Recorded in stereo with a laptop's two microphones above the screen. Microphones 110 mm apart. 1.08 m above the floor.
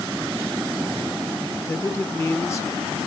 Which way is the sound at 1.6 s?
30° left (ahead or behind).